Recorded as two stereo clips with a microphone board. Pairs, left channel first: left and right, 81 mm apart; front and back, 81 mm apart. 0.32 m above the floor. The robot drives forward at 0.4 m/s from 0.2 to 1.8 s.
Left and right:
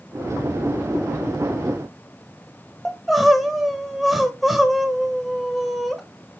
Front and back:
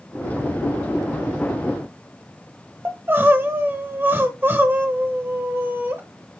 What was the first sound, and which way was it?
Crying, 175° right.